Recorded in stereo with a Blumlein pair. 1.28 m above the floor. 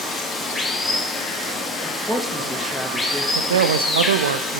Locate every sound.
0.0 s running water: 10° left, 1.6 m
1.8 s a woman speaking: straight ahead, 1.9 m
3.4 s a man speaking: 65° right, 0.6 m